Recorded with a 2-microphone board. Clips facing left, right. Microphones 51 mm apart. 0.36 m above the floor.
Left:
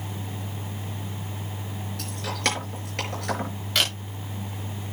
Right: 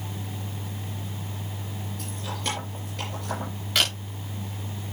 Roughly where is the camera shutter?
Centre.